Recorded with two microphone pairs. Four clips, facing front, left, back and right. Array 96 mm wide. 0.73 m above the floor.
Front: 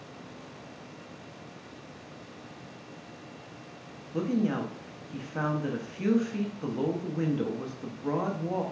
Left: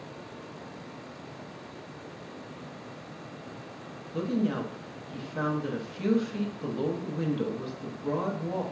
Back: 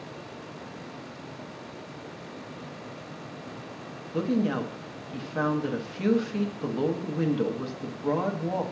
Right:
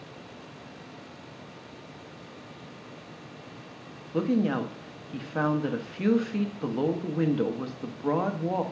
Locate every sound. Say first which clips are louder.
4.1 s a woman speaking: right 3 dB, back 2 dB; 110° right, 0.6 m